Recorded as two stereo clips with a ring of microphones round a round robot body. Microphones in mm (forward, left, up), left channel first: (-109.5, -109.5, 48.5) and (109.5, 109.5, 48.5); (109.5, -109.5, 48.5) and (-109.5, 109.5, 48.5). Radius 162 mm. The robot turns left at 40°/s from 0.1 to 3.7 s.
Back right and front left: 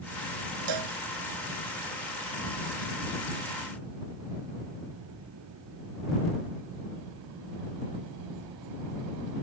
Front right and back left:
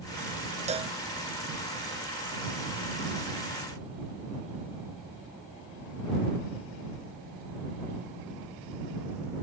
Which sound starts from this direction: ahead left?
A cowbell, at 0.7 s.